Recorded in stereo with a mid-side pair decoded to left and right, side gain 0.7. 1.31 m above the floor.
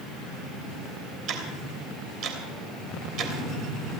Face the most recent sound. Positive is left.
turn(degrees=-45)